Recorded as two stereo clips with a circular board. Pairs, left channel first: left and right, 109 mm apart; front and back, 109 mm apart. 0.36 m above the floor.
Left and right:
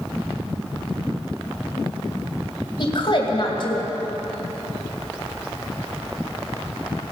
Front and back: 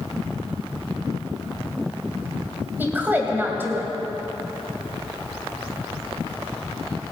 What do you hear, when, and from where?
2.8 s a woman speaking: 115° left, 2 m